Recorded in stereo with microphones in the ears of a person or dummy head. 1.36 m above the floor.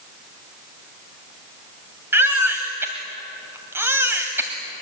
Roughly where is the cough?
No cough in this recording.